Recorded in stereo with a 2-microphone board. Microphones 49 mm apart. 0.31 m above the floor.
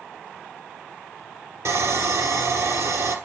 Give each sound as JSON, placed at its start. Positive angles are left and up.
{"t": 1.6, "sound": "sawing", "side_deg": -90, "distance_m": 1.8}